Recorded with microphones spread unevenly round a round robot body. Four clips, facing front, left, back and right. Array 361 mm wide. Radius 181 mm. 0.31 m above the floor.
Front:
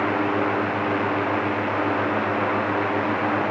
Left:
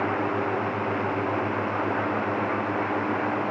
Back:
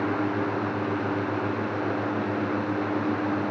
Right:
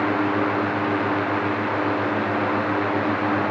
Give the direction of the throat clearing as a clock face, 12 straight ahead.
No throat clearing in this recording.